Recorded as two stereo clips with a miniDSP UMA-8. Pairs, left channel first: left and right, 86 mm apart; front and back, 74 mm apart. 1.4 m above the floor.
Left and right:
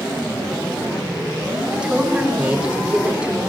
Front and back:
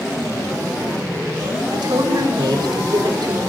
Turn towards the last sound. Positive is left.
turn(degrees=-165)